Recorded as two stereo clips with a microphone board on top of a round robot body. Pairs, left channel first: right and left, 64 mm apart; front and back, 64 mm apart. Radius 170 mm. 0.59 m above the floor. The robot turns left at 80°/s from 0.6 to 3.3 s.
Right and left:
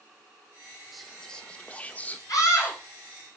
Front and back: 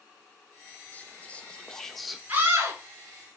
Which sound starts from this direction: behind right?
A scream, at 2.3 s.